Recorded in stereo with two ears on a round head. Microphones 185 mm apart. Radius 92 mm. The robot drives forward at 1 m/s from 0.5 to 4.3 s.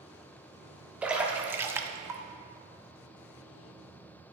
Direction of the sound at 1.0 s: 5° right (ahead or behind).